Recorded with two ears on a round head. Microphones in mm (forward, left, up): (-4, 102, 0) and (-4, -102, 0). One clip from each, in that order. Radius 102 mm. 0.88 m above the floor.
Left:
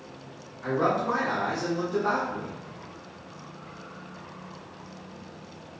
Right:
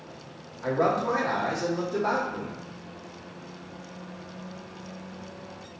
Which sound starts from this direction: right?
A man speaking, at 0.6 s.